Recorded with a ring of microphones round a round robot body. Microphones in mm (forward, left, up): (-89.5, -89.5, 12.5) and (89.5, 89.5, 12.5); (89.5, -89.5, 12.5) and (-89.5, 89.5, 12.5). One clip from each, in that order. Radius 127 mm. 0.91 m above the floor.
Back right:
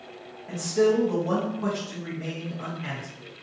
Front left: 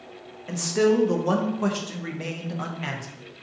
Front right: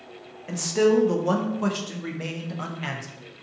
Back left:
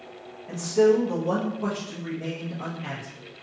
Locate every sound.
0.5 s a man speaking: straight ahead, 0.5 m